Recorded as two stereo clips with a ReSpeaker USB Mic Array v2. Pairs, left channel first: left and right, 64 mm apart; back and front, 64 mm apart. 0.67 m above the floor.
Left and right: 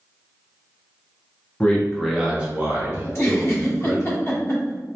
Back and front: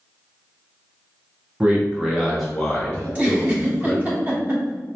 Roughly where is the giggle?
Ahead left.